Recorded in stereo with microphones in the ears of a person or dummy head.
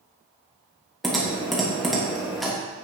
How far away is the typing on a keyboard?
About 1.3 m.